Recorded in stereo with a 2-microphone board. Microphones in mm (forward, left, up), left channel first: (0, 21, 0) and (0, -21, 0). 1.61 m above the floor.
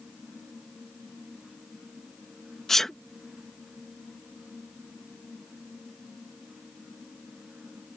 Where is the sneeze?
10° left (ahead or behind).